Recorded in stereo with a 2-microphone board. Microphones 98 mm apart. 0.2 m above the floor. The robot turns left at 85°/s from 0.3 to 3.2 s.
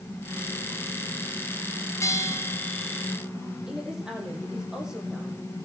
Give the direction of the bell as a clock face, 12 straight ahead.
9 o'clock.